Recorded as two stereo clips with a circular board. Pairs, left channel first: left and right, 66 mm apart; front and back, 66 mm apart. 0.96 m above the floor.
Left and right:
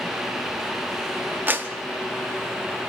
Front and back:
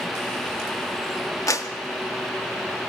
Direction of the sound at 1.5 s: 30° right.